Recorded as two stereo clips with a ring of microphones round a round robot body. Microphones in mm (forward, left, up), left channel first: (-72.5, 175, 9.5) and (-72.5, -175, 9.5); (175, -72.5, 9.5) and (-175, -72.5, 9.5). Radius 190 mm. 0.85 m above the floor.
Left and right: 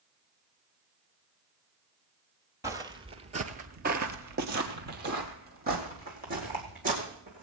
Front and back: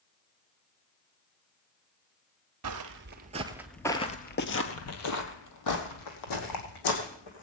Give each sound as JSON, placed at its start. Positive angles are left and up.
{"t": 2.6, "sound": "footsteps", "azimuth_deg": -170, "distance_m": 1.1}